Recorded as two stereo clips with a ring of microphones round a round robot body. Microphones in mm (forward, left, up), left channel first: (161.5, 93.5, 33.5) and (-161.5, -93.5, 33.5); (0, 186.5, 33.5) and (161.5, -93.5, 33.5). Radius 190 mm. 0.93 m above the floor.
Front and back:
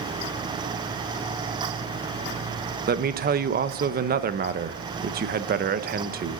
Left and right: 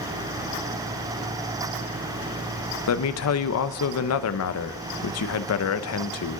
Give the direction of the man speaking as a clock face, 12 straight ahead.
7 o'clock.